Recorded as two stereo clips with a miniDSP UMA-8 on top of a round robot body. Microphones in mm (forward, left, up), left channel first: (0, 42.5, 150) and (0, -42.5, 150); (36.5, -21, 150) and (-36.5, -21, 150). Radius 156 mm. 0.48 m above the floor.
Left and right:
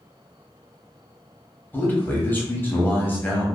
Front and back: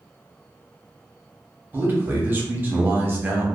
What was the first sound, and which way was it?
A man speaking, 140° left.